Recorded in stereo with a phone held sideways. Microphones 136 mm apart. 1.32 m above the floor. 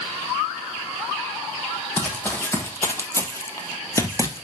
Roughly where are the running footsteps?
Centre.